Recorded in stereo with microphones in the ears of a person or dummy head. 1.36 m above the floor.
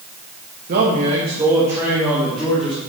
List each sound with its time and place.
0.7 s a man speaking: 55° right (ahead or behind), 1.8 m; by 2.8 s 5° left (ahead or behind), 3.5 m